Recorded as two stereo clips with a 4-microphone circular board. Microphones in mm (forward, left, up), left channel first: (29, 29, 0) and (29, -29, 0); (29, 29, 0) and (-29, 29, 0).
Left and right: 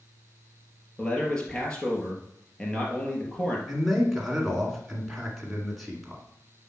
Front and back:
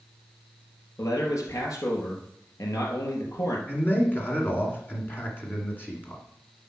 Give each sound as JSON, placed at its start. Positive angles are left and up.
{"t": 1.0, "sound": "a man speaking", "azimuth_deg": 15, "distance_m": 2.5}
{"t": 3.7, "sound": "a man speaking", "azimuth_deg": 0, "distance_m": 1.7}